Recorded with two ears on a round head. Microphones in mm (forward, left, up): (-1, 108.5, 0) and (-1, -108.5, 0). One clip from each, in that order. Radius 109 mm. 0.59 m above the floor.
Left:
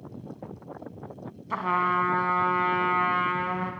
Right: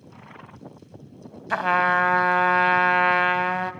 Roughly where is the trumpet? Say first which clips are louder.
Right 5 dB; right.